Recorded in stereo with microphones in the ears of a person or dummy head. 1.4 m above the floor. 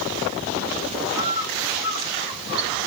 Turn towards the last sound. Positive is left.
turn(degrees=-35)  # may be behind; listen again after turning